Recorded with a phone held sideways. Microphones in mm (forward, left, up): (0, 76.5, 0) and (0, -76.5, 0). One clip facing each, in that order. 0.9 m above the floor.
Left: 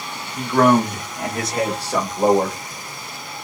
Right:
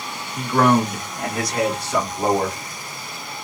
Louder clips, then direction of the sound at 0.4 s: Left 2 dB; 5° right (ahead or behind).